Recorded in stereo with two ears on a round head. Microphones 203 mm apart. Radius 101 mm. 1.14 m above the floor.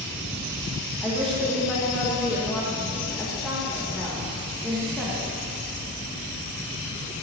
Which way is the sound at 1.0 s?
Centre (ahead or behind).